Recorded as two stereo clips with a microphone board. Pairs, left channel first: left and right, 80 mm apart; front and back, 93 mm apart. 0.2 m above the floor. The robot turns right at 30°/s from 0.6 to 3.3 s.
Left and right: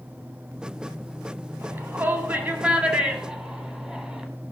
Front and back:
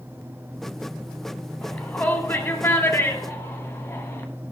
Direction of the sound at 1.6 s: 70° right.